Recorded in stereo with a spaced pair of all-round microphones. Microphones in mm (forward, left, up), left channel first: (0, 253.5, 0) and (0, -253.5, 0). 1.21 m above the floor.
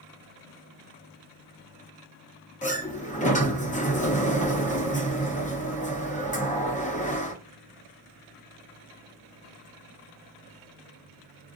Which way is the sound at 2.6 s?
15° left (ahead or behind).